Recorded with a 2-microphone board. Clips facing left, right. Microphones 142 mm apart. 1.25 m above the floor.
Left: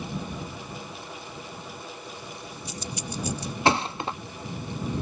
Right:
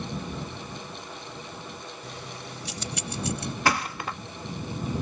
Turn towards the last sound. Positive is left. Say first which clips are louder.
# left 4 dB
turn(degrees=25)  # may be behind; listen again after turning